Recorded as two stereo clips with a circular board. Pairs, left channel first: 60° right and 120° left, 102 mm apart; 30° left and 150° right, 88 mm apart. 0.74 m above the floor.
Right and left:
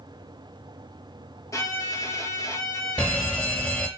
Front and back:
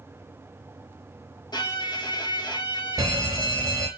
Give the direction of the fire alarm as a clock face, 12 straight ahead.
4 o'clock.